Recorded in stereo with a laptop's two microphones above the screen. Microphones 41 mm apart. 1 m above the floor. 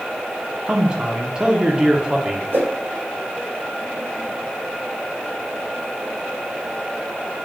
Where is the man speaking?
20° right (ahead or behind), 0.8 m.